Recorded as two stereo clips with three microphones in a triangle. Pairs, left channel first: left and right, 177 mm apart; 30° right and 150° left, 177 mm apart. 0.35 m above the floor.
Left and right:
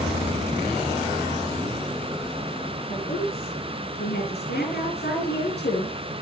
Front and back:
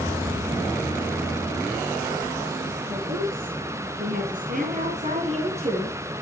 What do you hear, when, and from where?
2.9 s a woman speaking: 125° left, 5.5 m; by 6.2 s 90° left, 5 m